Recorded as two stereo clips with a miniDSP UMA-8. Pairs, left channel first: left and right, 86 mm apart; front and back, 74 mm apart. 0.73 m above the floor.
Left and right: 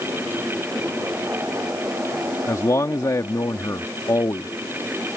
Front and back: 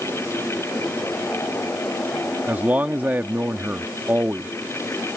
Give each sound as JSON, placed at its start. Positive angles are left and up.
{"t": 2.5, "sound": "a man speaking", "azimuth_deg": 125}